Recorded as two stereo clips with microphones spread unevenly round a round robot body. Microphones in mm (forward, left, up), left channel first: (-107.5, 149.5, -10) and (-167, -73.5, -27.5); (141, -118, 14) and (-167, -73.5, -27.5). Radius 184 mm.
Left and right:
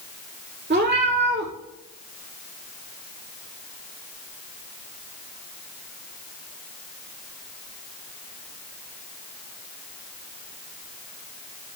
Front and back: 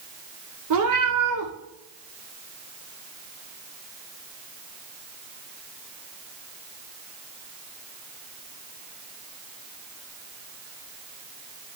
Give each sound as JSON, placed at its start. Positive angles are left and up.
{"t": 0.7, "sound": "a cat meowing", "azimuth_deg": -155, "distance_m": 5.5}